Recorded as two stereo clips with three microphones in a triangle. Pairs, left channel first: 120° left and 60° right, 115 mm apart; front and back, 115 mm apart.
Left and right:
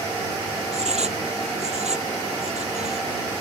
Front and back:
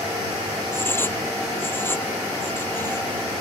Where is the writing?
70° right.